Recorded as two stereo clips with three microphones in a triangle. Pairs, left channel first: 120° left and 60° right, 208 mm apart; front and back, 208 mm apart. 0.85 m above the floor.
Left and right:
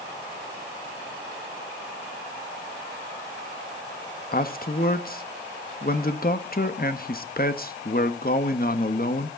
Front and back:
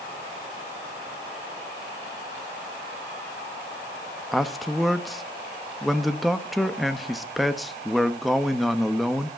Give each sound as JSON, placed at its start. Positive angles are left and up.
{"t": 4.3, "sound": "a man speaking", "azimuth_deg": 90, "distance_m": 1.0}